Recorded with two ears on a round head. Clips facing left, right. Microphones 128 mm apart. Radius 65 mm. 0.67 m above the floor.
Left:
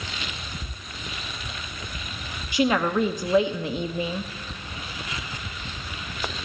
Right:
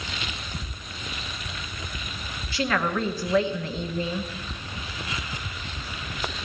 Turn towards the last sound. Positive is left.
turn(degrees=15)  # may be behind; listen again after turning